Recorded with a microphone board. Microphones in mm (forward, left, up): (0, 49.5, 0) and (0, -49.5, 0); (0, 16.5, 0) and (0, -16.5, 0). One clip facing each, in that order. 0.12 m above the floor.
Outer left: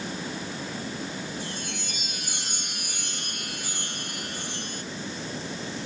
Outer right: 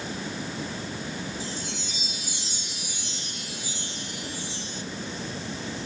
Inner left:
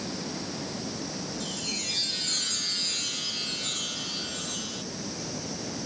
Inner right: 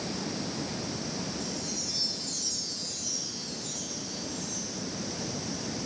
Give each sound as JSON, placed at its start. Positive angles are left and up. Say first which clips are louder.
{"t": 1.4, "sound": "a chime", "louder": "outer right 1 dB, inner left 3 dB", "side_deg": 55}